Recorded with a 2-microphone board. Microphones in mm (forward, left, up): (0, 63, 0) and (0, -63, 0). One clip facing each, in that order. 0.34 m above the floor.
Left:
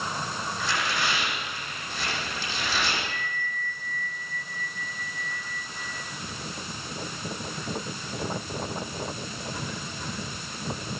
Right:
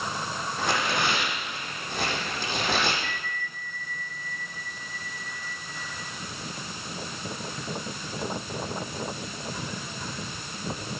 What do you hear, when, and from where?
0.6 s tearing paper: 55° right (ahead or behind), 8.5 m
3.0 s a bell: 60° right (ahead or behind), 6.5 m